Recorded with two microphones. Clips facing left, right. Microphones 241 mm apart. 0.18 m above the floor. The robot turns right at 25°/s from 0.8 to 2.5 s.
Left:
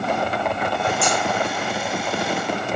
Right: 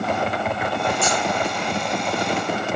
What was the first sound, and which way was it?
Scissors, 75° left (ahead or behind).